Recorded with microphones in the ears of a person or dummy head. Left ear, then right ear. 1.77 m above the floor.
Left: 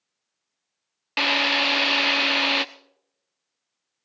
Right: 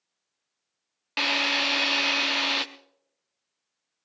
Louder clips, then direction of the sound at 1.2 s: Left 3 dB; 10° left (ahead or behind).